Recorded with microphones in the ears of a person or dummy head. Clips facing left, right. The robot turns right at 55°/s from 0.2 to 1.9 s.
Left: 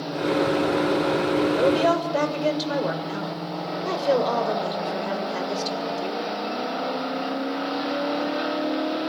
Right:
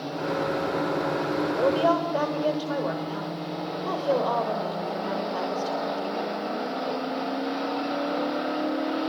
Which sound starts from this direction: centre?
A woman speaking, at 1.6 s.